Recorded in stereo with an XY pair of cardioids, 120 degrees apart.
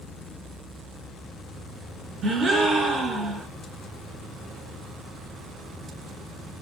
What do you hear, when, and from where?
2.2 s a gasp: 40° right, 0.7 m